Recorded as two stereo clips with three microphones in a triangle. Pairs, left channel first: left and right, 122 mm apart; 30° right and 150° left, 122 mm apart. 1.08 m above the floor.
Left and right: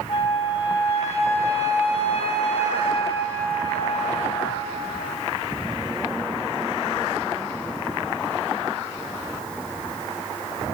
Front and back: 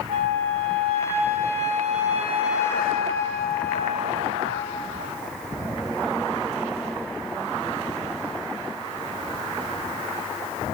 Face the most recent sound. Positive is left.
turn(degrees=125)